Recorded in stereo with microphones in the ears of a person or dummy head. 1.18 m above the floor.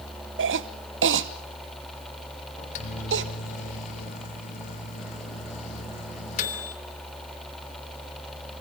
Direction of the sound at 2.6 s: 45° left (ahead or behind).